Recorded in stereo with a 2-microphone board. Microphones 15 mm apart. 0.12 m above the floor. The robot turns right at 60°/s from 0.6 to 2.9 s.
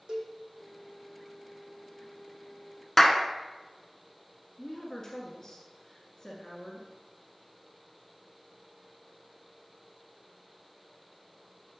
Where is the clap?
20° left (ahead or behind), 0.9 m.